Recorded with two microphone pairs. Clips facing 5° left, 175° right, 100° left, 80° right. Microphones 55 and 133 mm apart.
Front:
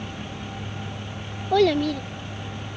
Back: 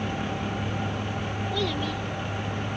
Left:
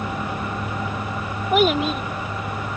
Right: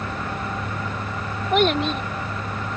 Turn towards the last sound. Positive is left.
turn(degrees=20)